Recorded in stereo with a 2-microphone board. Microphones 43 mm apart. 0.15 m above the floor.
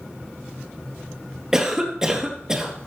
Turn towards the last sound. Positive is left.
turn(degrees=-15)  # may be behind; listen again after turning